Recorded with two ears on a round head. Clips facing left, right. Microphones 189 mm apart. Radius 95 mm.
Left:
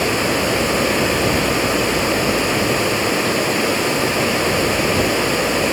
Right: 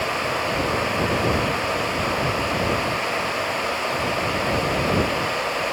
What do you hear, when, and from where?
0.0 s running water: 65° left (ahead or behind)